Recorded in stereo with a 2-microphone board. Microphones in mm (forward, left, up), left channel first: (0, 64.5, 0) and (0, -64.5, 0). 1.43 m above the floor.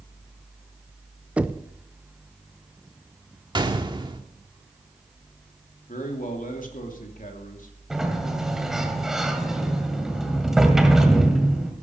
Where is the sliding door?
5° right (ahead or behind), 1.8 m.